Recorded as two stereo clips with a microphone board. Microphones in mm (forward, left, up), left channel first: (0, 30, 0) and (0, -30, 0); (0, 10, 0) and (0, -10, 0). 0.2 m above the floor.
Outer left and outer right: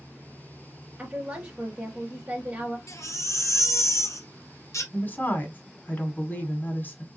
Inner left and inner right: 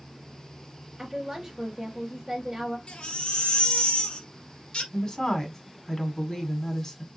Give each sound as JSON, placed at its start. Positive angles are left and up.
{"t": 1.0, "sound": "a woman speaking", "side_deg": -20, "distance_m": 2.5}
{"t": 2.9, "sound": "a baby crying", "side_deg": 60, "distance_m": 1.6}
{"t": 4.9, "sound": "a woman speaking", "side_deg": 30, "distance_m": 1.5}